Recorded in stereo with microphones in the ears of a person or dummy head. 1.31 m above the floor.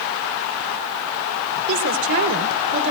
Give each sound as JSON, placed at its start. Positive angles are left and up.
{"t": 1.7, "sound": "a woman speaking", "side_deg": -70, "distance_m": 3.0}